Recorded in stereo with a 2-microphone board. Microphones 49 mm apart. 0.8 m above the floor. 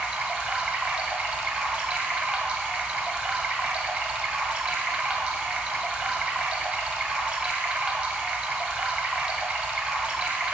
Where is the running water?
30° right (ahead or behind), 1.2 m.